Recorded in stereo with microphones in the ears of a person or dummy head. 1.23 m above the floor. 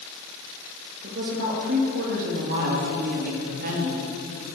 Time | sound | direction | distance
1.0 | a woman speaking | 50° right (ahead or behind) | 2 m